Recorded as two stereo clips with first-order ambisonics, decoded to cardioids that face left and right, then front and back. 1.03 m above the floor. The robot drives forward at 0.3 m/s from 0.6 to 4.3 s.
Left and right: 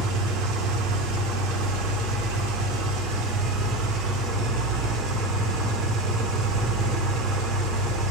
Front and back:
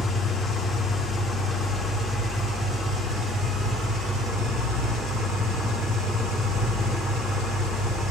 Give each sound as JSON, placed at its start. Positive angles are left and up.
{"t": 0.0, "sound": "an engine running", "azimuth_deg": -80, "distance_m": 1.5}